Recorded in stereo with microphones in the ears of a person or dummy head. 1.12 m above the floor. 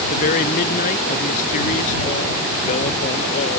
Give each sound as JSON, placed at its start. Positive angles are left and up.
{"t": 0.1, "sound": "a man speaking", "side_deg": 45}